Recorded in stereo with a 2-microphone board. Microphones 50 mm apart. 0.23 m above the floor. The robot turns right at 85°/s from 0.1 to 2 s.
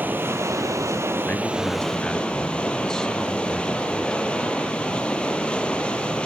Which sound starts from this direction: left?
A man speaking, at 1.2 s.